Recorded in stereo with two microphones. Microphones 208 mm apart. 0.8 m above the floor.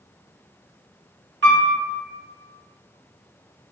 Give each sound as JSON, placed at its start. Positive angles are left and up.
{"t": 1.4, "sound": "a piano", "side_deg": -65, "distance_m": 1.2}